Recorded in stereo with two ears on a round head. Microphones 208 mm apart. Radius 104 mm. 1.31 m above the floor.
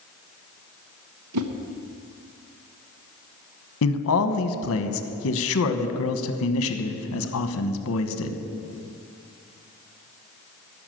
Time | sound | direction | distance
1.3 | a whoosh | 80° right | 1.0 m
3.8 | a man speaking | 65° left (ahead or behind) | 1.2 m